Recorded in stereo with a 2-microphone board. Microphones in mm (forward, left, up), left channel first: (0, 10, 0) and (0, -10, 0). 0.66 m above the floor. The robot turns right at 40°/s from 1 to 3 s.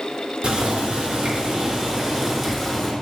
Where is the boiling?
60° right, 0.6 m; by 2.9 s 15° left, 0.6 m.